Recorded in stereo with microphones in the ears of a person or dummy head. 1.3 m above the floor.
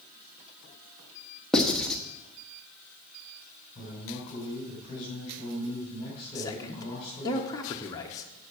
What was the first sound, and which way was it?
Writing, 5° left (ahead or behind).